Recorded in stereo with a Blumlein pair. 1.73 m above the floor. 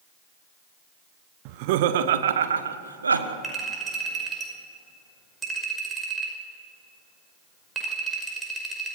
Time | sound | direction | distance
1.4 | laughter | 45° right | 1.2 m
3.4 | a clink | 15° right | 5.5 m